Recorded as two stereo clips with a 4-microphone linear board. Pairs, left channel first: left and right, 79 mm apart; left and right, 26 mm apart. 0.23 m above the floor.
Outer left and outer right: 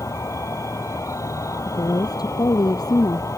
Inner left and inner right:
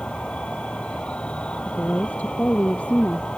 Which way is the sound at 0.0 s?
40° left (ahead or behind).